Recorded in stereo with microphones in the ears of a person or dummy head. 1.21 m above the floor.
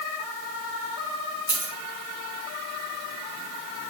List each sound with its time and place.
1.5 s a dropped coin: 20° right (ahead or behind), 0.9 m